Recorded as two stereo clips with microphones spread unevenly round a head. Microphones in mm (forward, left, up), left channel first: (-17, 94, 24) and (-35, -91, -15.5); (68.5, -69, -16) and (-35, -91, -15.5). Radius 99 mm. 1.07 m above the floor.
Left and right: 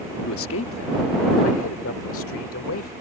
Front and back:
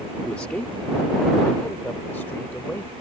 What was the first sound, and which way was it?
A man speaking, 95° left.